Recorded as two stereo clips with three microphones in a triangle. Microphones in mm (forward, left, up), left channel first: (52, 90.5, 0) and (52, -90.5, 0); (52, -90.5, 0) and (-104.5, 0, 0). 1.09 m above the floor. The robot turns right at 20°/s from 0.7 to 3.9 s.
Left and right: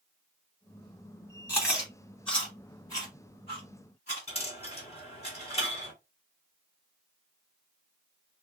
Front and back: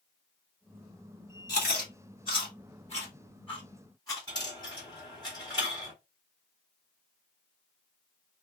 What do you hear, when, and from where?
1.5 s chewing: 10° right, 2.5 m; by 5.3 s 40° left, 2.5 m
4.3 s a dropped coin: 35° left, 2.5 m